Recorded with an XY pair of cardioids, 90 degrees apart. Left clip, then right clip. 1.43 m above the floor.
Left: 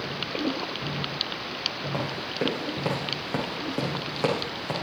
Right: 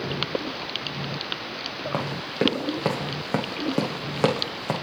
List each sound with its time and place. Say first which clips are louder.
1.9 s running footsteps: right 2 dB; 50° right, 5 m